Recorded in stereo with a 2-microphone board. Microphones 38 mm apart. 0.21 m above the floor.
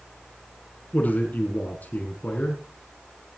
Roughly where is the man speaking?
Left.